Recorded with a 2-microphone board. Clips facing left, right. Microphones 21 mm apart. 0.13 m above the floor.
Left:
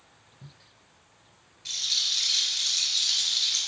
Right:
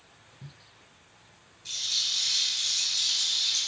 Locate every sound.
1.6 s a rattle: 25° left (ahead or behind), 0.7 m